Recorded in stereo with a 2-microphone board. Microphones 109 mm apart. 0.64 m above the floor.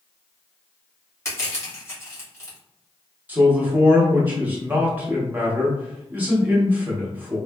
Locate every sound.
1.2 s crushing: 25° left (ahead or behind), 1.6 m
3.3 s a man speaking: 15° right (ahead or behind), 0.9 m